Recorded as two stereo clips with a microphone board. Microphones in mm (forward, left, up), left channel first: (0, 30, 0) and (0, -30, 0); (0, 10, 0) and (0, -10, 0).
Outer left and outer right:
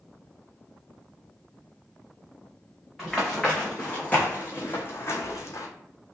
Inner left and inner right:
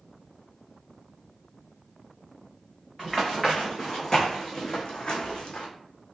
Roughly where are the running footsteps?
Centre.